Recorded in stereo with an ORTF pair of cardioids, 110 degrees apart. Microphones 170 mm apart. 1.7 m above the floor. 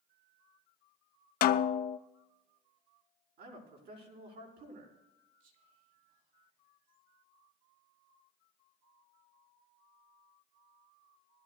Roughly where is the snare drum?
Ahead left.